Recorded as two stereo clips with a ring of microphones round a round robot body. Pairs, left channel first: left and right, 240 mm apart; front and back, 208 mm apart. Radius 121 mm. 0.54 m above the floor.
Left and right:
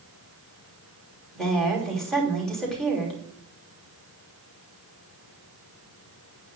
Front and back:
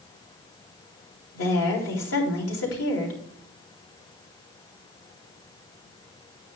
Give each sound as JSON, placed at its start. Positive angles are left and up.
{"t": 1.4, "sound": "a woman speaking", "azimuth_deg": 0, "distance_m": 3.0}